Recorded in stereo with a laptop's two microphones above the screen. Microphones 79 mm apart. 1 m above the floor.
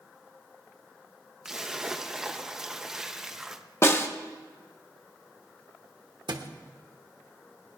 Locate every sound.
1.4 s a splash: 5° right (ahead or behind), 0.5 m
3.8 s a snare drum: 30° left (ahead or behind), 1.1 m
6.3 s a thud: 70° right (ahead or behind), 1.1 m